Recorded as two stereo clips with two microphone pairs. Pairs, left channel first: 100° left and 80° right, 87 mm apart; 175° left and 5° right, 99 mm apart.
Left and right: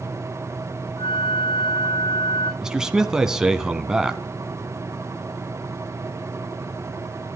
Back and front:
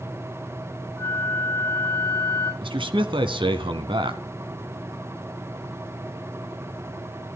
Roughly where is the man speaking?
Ahead.